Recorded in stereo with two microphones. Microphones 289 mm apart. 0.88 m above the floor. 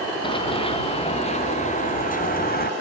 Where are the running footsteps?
15° left (ahead or behind); by 2.7 s 30° left (ahead or behind).